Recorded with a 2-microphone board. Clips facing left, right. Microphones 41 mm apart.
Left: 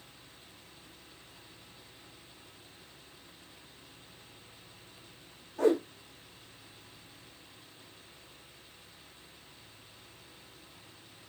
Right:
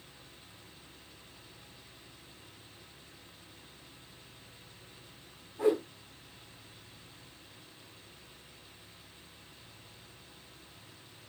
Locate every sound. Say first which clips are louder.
5.6 s a whoosh: left 2 dB; 75° left (ahead or behind), 8 m